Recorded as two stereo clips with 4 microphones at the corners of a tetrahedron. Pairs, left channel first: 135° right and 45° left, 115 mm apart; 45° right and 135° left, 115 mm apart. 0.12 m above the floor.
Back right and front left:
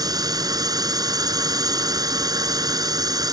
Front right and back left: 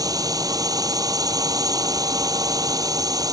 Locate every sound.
0.0 s a drone: 90° left